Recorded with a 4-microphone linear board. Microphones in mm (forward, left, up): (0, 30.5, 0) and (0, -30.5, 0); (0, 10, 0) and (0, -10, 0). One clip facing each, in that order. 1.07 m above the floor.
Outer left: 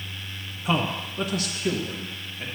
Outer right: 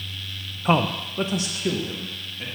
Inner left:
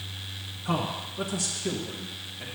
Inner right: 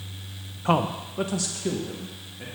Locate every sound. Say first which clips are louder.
0.7 s a man speaking: outer right 4 dB, inner right 6 dB; 40° right (ahead or behind), 0.6 m; by 2.5 s 5° right (ahead or behind), 1.6 m